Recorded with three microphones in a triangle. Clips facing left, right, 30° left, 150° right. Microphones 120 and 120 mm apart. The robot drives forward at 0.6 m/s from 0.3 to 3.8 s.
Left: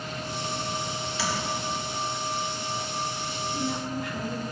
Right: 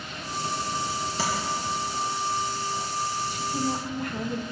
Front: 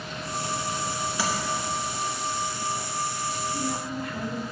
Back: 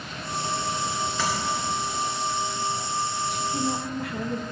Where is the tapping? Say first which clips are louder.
Right 1 dB, back 1 dB; 50° right, 2.5 m.